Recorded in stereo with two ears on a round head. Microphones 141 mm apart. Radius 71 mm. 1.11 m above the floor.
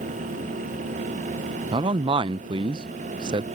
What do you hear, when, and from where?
1.7 s a man speaking: 30° right (ahead or behind)